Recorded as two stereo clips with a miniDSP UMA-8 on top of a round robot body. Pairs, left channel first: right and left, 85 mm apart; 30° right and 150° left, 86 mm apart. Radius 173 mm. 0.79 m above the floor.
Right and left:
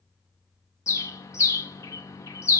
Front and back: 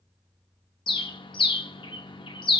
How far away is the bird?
About 0.9 m.